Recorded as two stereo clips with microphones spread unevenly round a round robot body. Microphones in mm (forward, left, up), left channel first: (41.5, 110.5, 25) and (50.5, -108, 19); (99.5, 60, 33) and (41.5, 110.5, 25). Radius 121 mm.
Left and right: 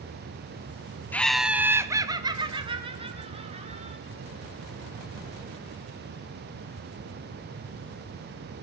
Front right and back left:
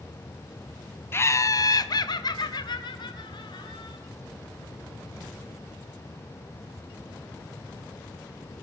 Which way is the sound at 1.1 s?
10° left.